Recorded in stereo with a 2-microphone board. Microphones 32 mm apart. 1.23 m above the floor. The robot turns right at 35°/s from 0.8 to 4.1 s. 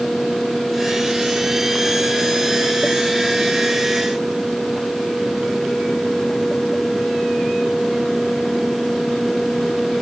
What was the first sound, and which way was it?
Only background noise.